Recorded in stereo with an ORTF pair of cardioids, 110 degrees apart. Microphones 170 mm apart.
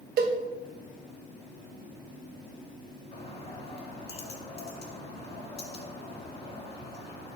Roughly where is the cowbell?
Ahead right.